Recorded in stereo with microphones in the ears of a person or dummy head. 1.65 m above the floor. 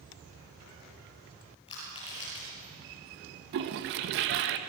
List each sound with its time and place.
1.7 s crushing: 30° left (ahead or behind), 9.5 m
3.5 s a toilet flushing: 55° right (ahead or behind), 1.2 m